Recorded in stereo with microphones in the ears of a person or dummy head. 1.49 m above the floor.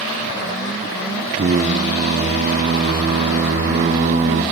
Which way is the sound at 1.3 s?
40° right (ahead or behind).